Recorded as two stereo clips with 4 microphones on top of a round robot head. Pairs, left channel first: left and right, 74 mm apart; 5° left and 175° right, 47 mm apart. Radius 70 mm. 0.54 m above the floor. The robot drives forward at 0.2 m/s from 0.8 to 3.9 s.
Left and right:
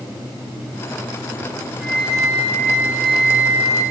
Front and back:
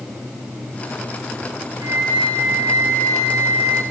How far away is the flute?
About 6 m.